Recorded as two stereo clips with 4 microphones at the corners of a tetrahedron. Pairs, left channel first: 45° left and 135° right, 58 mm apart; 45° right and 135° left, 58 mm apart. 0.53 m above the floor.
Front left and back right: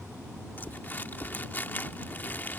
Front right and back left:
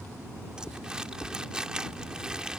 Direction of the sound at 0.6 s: 70° left.